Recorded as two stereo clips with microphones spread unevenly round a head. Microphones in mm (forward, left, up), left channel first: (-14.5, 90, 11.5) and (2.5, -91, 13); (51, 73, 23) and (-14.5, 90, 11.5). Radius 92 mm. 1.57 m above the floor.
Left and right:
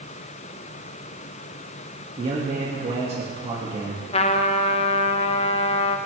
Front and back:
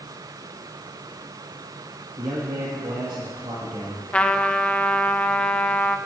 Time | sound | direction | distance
2.2 | a man speaking | 145° right | 2 m
4.1 | a trumpet | 45° left | 0.7 m